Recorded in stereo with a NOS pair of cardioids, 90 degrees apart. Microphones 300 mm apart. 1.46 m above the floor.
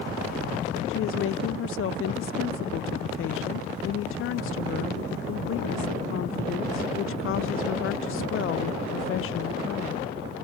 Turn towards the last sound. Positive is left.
turn(degrees=50)